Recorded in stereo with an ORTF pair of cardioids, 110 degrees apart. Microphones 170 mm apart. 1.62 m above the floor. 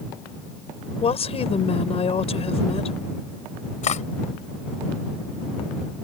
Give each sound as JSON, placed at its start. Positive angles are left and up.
{"t": 1.0, "sound": "a woman speaking", "azimuth_deg": 35}
{"t": 3.8, "sound": "cutlery clinking", "azimuth_deg": 45}